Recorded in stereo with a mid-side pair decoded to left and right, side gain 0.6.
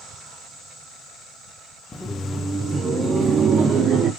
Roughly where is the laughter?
Ahead.